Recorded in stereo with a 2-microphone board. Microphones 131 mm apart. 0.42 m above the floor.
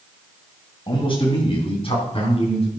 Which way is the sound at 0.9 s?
40° left (ahead or behind).